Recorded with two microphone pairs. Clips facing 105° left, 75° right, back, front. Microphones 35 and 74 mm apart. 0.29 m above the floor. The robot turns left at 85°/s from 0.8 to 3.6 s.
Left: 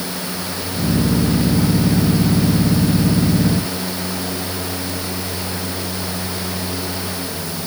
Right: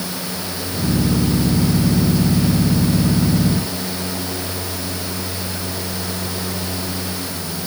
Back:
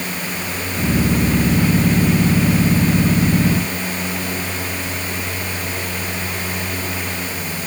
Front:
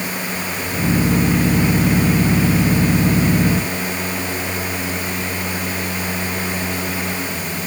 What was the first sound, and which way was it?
Only background noise.